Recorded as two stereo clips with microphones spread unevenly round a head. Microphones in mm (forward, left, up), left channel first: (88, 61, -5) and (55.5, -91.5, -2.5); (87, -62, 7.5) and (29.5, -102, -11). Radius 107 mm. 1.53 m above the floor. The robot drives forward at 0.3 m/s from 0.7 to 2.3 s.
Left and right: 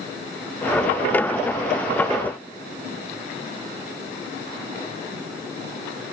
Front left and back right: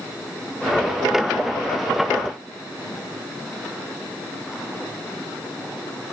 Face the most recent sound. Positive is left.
No sound to turn to.